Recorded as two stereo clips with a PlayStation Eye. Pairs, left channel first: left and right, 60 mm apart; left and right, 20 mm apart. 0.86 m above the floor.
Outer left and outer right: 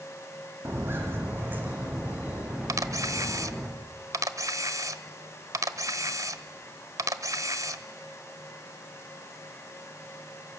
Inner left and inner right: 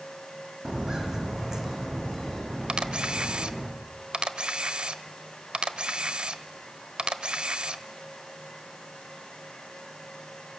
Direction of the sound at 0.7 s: 45° right (ahead or behind).